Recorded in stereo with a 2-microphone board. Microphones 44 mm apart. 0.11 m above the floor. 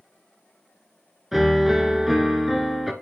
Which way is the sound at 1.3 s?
5° right (ahead or behind).